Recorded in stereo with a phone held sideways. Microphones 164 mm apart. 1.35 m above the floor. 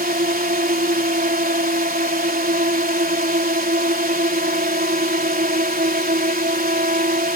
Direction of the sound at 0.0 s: 65° right (ahead or behind).